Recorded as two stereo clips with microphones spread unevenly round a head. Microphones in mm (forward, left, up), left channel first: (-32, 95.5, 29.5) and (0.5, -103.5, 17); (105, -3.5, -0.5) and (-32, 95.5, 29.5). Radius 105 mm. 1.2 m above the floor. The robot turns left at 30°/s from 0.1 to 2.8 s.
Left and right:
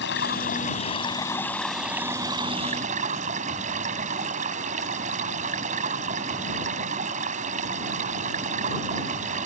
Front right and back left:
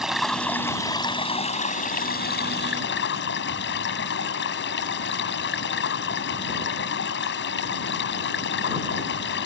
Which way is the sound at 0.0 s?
60° left.